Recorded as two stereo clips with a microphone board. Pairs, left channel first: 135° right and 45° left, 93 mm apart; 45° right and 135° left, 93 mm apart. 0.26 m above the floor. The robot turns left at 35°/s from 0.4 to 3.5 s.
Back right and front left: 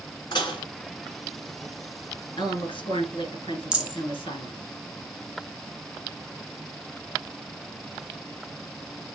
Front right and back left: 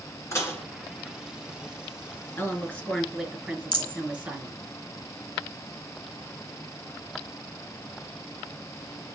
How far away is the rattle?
About 2.5 m.